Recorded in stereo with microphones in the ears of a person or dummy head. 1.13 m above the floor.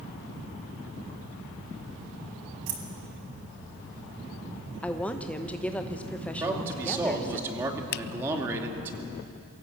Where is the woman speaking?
5° left (ahead or behind), 1.1 m.